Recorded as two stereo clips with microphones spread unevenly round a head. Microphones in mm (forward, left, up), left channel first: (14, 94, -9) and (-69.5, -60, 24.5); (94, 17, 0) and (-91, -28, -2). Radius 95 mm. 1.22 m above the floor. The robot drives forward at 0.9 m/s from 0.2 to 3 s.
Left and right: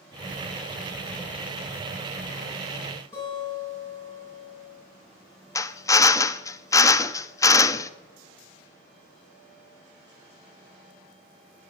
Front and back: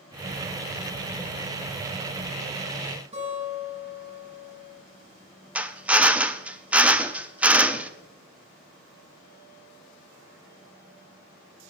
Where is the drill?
115° left, 0.5 m.